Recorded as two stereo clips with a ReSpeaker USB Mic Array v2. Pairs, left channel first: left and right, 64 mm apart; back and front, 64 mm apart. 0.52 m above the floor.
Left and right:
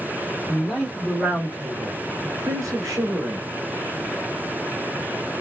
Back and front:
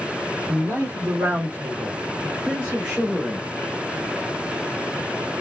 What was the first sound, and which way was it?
A man speaking, 15° left.